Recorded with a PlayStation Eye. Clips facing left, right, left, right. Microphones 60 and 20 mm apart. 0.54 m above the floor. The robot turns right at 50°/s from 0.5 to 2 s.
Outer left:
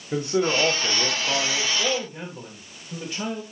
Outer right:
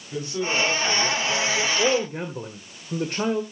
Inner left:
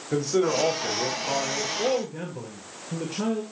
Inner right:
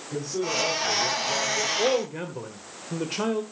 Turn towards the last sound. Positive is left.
turn(degrees=-55)  # may be behind; listen again after turning